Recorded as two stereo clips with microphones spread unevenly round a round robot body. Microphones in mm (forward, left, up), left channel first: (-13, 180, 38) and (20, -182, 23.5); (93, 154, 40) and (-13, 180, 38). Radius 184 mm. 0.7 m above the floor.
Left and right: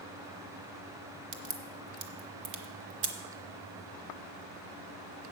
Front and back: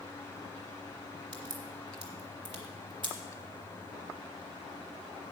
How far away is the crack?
About 0.8 m.